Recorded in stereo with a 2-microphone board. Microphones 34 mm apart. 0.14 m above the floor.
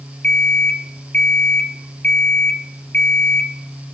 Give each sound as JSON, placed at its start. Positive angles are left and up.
{"t": 0.2, "sound": "an alarm clock", "side_deg": 40, "distance_m": 2.0}